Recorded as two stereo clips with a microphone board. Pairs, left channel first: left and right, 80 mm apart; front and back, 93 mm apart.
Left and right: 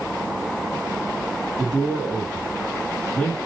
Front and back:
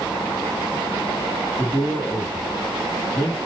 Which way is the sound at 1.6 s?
25° left.